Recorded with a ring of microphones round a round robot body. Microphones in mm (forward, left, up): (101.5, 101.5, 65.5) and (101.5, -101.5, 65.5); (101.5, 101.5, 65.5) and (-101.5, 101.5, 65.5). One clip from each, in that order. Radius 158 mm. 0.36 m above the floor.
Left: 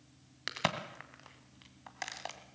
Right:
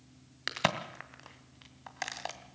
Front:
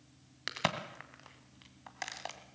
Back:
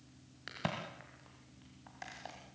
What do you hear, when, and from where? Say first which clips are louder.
0.5 s a crack: right 3 dB, front 6 dB; 25° right, 2.0 m